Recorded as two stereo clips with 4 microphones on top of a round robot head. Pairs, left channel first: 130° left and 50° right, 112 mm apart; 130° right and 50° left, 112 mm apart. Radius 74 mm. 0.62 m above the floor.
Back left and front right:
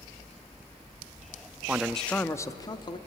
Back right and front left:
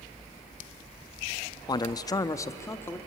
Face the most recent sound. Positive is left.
turn(degrees=165)